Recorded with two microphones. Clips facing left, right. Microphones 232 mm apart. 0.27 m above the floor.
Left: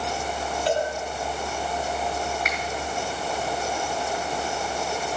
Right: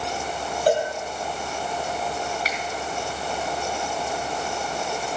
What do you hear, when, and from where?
0.7 s a cowbell: 45° right (ahead or behind), 2.5 m
2.5 s a finger snap: 35° right (ahead or behind), 3.5 m